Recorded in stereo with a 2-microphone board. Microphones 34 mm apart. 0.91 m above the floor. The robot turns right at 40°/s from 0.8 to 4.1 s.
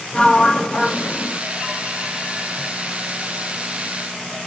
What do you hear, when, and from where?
0.1 s a sliding door: 25° left (ahead or behind), 1.1 m; by 1.4 s 50° left (ahead or behind), 1.1 m